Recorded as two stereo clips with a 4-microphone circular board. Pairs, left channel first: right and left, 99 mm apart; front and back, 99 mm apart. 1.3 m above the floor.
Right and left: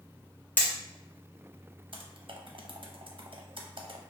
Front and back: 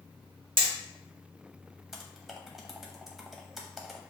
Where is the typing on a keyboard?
95° left, 0.7 m.